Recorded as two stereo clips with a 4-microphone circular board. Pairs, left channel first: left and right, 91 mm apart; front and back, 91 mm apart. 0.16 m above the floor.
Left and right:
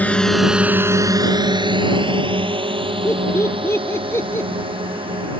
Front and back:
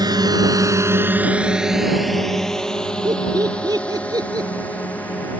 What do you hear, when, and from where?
0.0 s a drone: 160° left; by 5.4 s 75° right
3.0 s laughter: 145° left